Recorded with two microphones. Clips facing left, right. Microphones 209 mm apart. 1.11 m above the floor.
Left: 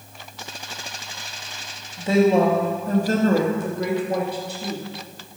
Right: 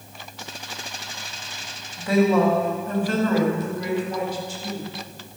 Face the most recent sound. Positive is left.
turn(degrees=65)  # may be behind; listen again after turning